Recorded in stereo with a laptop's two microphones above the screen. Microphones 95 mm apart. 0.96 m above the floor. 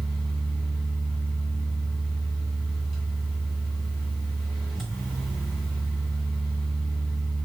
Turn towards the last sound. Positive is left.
turn(degrees=0)  # may be behind; listen again after turning